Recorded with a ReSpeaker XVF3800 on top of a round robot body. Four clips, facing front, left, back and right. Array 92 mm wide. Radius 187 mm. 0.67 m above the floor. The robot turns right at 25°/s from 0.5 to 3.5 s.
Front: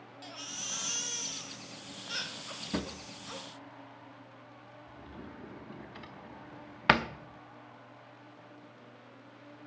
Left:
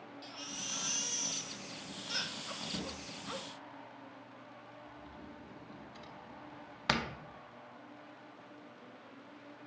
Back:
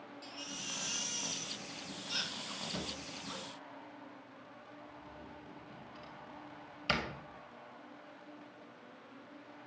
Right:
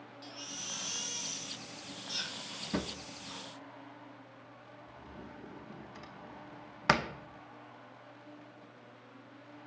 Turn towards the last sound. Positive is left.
turn(degrees=-25)